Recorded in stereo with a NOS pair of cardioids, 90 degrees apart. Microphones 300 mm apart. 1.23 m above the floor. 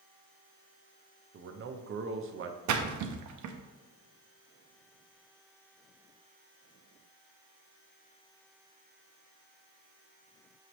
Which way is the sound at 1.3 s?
40° right.